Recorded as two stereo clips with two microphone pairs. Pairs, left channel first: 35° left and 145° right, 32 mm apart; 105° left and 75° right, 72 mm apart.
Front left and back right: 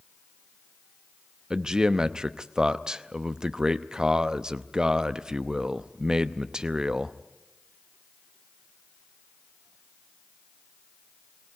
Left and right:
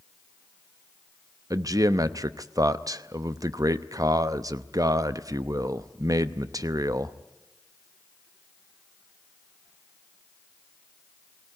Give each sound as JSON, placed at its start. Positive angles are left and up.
{"t": 1.5, "sound": "a man speaking", "azimuth_deg": -90, "distance_m": 0.7}